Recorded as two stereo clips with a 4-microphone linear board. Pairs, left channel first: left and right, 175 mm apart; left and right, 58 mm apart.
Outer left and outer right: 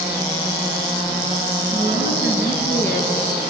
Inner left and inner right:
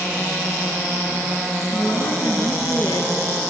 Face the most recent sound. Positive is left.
turn(degrees=70)  # may be behind; listen again after turning